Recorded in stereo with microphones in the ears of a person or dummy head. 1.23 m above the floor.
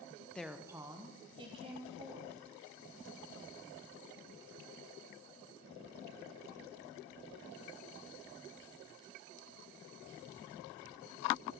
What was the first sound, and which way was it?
A woman speaking, 10° left (ahead or behind).